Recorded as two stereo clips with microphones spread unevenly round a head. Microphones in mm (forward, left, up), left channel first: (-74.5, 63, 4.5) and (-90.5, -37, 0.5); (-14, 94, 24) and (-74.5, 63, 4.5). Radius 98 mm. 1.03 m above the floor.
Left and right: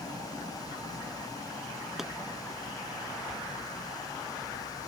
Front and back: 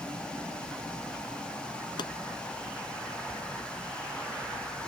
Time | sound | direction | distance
2.0 | a pop | 10° right | ?